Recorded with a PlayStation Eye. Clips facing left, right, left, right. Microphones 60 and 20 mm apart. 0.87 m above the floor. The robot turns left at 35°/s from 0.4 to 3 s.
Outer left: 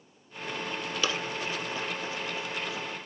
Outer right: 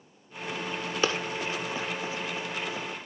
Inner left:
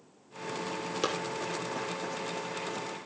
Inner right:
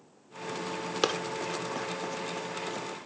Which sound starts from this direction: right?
Running footsteps, at 1.0 s.